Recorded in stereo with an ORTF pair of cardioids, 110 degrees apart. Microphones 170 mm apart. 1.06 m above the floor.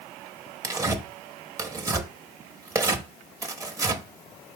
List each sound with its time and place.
0.6 s tearing paper: 20° right, 0.7 m